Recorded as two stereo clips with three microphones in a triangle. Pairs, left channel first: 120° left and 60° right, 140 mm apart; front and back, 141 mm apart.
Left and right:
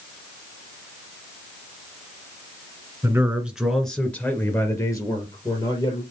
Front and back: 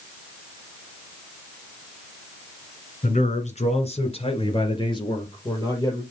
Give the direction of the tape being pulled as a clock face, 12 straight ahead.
No tape being pulled in this recording.